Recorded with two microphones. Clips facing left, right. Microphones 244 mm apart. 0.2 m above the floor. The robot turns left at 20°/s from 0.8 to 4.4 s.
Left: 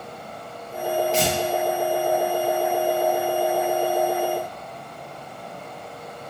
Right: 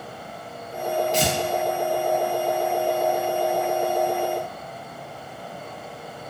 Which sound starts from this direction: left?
Tearing paper, at 1.1 s.